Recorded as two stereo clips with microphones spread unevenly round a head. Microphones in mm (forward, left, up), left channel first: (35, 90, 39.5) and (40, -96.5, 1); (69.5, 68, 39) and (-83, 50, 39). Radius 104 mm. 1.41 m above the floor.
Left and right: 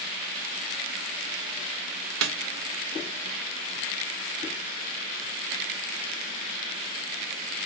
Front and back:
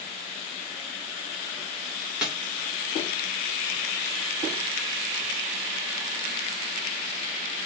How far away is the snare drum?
About 0.6 m.